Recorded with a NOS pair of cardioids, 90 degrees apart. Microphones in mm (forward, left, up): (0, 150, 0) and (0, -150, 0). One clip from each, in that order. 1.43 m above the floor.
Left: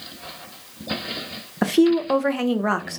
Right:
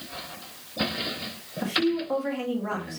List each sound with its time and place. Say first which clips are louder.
1.6 s a woman speaking: left 7 dB; 70° left, 0.8 m